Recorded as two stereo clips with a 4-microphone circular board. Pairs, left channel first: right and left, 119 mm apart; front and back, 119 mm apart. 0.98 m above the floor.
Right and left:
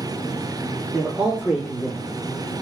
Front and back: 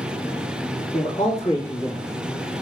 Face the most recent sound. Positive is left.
turn(degrees=40)